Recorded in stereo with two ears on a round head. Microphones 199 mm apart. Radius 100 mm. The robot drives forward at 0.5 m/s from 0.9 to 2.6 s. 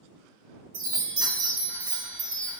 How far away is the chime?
About 1.5 m.